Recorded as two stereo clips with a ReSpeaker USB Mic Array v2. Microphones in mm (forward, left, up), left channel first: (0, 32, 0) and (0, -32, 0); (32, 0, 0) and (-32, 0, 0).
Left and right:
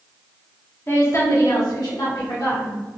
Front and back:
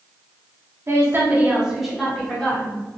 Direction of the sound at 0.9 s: 145° left.